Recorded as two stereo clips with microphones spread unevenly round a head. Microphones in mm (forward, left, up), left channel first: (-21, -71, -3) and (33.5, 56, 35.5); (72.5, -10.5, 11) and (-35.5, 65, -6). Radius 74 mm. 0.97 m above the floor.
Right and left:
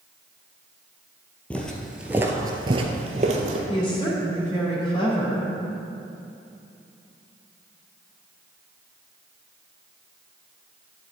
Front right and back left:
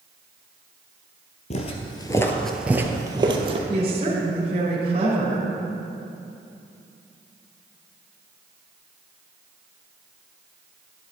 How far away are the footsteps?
About 1.6 m.